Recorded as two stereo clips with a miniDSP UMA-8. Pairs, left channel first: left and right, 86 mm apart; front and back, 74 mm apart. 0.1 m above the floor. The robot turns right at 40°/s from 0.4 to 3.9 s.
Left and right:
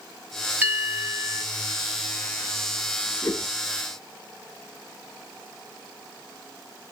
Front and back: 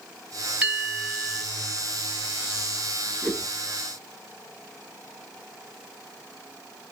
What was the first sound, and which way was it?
A bell, 120° right.